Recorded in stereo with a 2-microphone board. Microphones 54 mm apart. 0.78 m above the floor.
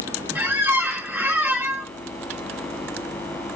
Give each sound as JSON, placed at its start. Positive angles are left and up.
{"t": 0.3, "sound": "a squeak", "side_deg": -35, "distance_m": 1.1}